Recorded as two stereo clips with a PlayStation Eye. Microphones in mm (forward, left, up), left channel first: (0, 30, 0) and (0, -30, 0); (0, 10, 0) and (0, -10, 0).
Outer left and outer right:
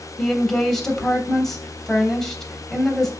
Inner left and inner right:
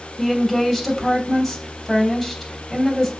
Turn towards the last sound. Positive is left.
turn(degrees=5)  # may be behind; listen again after turning